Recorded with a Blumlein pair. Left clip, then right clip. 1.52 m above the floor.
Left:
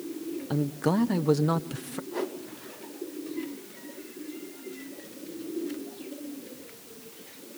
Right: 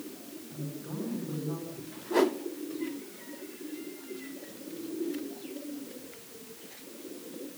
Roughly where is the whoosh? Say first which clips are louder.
Right 8 dB; ahead right.